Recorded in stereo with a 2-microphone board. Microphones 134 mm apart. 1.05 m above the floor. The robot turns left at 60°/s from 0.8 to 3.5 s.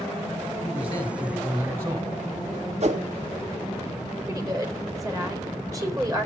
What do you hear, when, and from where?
0.6 s a man speaking: 40° left, 4.5 m; by 2.2 s 45° right, 4.5 m
2.8 s a whoosh: 55° right (ahead or behind), 1.7 m; by 3.0 s 65° right (ahead or behind), 1.7 m
4.3 s a woman speaking: 25° right (ahead or behind), 4.5 m